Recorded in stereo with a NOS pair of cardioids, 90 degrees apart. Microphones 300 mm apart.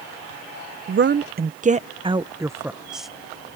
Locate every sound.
0.9 s a woman speaking: 45° right; by 3.1 s straight ahead